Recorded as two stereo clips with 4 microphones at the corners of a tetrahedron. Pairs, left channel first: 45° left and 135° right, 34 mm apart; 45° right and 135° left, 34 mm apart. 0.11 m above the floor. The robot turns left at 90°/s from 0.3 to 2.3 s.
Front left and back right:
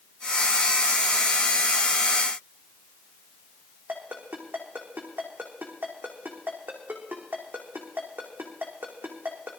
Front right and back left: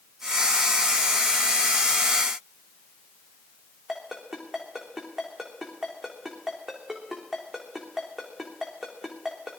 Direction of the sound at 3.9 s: 150° right.